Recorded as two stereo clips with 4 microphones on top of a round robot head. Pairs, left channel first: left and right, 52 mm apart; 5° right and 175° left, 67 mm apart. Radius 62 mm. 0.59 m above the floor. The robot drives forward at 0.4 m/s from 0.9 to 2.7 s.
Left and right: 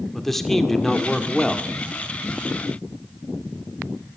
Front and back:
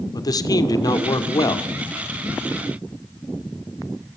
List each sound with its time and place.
0.1 s a man speaking: 5° left, 1.8 m